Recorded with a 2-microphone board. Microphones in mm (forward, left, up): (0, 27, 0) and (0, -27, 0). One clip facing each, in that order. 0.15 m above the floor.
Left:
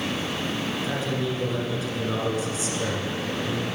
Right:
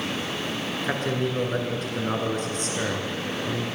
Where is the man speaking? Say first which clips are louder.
Right 4 dB; 50° right (ahead or behind), 1.9 m.